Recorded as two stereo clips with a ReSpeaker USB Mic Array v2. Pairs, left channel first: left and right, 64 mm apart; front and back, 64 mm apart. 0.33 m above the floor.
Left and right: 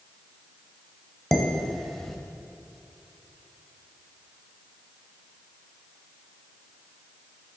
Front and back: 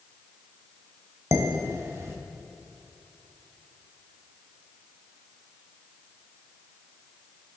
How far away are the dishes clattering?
About 0.9 m.